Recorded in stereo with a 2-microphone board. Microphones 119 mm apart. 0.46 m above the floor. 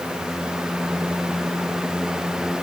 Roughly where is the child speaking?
I don't hear a child speaking.